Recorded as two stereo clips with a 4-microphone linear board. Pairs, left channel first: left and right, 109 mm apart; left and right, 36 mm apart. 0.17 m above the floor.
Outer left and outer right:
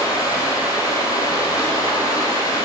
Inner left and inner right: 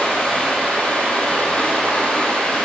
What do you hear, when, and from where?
0.0 s running water: 35° left (ahead or behind), 3 m